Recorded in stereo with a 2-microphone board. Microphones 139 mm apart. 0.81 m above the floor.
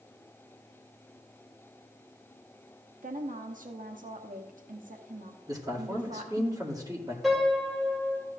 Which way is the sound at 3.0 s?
70° right (ahead or behind).